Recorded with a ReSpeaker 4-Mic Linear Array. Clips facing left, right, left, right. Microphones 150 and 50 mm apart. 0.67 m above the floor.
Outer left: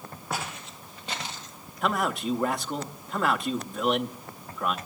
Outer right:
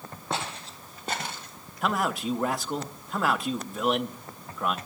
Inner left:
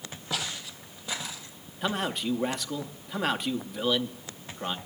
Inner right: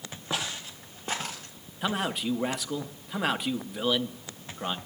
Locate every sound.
0.3 s footsteps: 25° right (ahead or behind), 1.5 m; by 1.6 s 60° right (ahead or behind), 1.3 m
1.8 s a man speaking: centre (ahead or behind), 0.7 m